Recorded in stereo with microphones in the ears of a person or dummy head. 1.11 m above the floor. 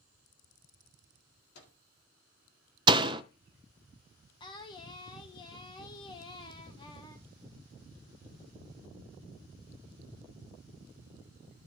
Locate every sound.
1.6 s a microwave: 70° left (ahead or behind), 2 m
2.9 s a door slam: 25° right (ahead or behind), 0.7 m
4.4 s singing: 30° left (ahead or behind), 1.4 m